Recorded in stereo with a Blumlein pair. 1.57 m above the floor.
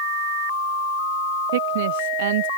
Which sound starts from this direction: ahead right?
A woman speaking, at 1.5 s.